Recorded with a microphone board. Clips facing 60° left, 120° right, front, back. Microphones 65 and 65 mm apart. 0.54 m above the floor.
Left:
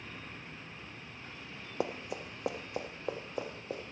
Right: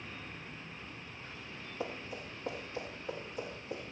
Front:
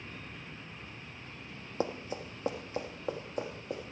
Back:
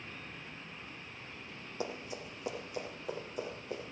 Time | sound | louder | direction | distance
1.8 | running footsteps | left 5 dB, front 5 dB | 50° left | 1.3 m